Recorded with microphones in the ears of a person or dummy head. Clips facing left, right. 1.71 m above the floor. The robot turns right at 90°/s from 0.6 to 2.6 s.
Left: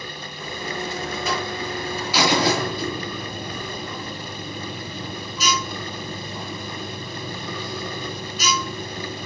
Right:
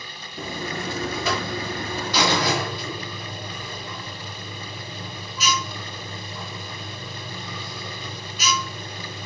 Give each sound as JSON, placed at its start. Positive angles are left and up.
{"t": 0.4, "sound": "a buzzer", "azimuth_deg": -135, "distance_m": 4.0}